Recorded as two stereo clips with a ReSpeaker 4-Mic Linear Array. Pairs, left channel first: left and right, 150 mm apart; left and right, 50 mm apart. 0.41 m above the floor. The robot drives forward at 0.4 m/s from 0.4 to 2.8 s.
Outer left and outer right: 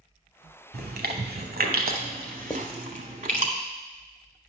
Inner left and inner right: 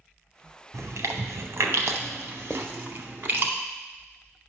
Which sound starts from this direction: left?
Writing, at 2.5 s.